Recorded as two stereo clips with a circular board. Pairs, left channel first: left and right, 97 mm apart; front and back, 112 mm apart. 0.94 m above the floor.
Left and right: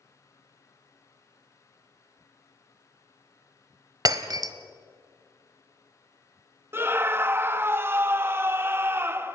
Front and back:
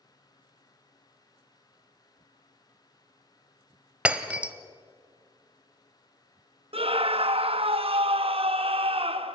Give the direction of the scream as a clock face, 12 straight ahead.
5 o'clock.